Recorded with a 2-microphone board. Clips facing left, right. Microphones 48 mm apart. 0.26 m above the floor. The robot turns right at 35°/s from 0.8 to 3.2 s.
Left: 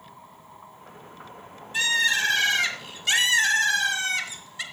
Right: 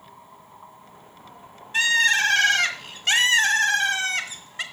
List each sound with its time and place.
1.7 s a bird: 115° right, 1.8 m; by 4.6 s 65° right, 1.8 m